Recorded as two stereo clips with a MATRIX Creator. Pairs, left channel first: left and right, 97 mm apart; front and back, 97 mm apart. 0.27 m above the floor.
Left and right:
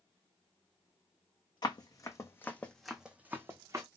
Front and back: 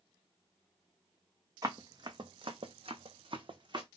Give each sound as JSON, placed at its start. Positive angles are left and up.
{"t": 1.6, "sound": "running footsteps", "azimuth_deg": 130, "distance_m": 0.9}